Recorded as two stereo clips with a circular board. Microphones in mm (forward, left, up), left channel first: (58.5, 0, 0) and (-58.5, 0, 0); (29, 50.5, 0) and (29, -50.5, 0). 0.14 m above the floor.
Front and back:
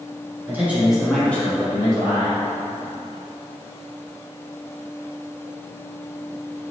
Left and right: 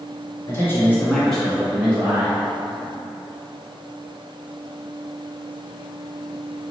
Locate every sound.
0.5 s a man speaking: 125° left, 1.5 m; by 2.4 s 30° right, 1.7 m